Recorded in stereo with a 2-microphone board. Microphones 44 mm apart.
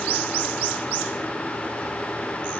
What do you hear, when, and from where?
Only background noise.